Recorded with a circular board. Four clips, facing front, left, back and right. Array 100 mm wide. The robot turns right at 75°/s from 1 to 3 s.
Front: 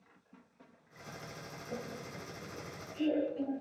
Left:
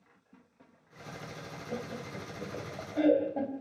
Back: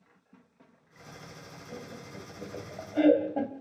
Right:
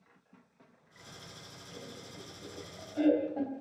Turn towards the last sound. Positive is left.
turn(degrees=165)